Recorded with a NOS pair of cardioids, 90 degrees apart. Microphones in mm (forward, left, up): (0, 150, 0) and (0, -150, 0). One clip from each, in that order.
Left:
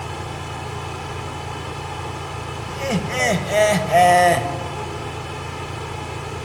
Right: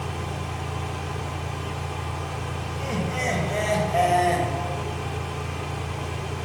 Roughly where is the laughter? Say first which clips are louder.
Left 7 dB; ahead left.